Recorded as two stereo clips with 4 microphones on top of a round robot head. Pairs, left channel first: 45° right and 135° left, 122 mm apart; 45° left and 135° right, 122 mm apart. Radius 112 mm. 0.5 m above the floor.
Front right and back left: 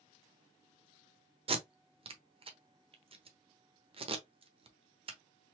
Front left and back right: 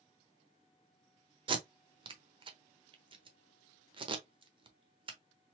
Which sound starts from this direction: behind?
Tape being pulled, at 1.5 s.